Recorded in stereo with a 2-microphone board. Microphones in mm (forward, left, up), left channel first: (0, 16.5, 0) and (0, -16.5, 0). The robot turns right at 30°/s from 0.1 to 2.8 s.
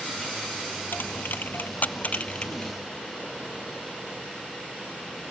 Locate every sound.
0.9 s a dropped coin: 80° left; by 2.7 s 30° left (ahead or behind)